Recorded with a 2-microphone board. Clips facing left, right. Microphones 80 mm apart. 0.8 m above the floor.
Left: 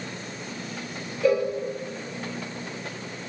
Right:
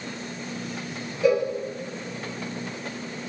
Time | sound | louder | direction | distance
1.2 | a cowbell | right 1 dB | 10° right (ahead or behind) | 0.6 m